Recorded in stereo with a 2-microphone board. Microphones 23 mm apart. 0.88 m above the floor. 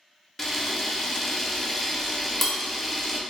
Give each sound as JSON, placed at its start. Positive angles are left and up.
{"t": 0.4, "sound": "a camera shutter", "side_deg": 10, "distance_m": 0.8}